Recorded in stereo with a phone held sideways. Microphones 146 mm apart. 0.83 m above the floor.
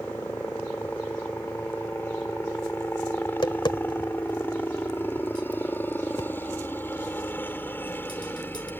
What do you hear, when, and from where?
0.0 s a helicopter: 15° left (ahead or behind)
3.2 s tapping: 30° left (ahead or behind)